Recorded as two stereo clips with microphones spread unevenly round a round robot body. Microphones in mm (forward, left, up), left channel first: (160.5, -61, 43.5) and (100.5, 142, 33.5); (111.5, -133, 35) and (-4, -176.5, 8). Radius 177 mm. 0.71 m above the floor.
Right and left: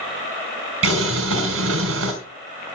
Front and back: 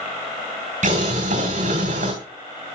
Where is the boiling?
155° left, 3 m.